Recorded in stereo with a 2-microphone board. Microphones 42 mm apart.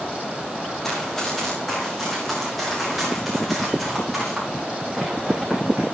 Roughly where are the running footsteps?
Centre.